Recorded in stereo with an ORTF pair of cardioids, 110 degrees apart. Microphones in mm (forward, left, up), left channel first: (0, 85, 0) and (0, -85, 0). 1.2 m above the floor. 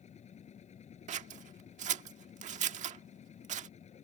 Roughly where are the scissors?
Ahead right.